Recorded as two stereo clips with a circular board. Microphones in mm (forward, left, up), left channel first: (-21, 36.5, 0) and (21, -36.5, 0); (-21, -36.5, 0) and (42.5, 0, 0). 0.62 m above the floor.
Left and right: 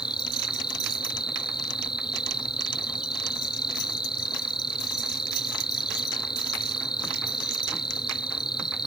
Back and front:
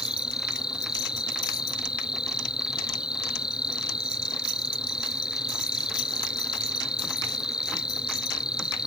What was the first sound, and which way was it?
An insect, 105° left.